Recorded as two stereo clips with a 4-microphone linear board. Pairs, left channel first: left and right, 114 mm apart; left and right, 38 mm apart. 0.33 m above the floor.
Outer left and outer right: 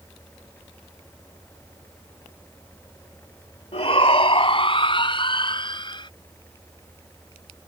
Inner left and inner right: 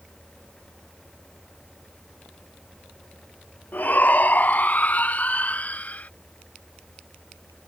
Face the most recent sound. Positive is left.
turn(degrees=40)  # may be behind; listen again after turning